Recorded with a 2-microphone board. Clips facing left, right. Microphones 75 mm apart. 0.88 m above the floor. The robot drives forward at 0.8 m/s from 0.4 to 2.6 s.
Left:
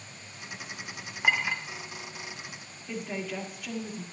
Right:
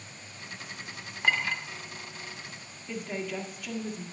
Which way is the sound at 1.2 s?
10° left (ahead or behind).